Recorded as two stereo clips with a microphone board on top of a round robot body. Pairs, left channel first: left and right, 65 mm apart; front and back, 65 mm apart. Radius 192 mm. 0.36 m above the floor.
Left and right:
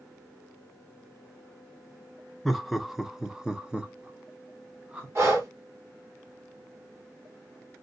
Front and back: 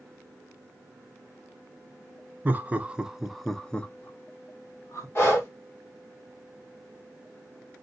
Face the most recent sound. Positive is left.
turn(degrees=-45)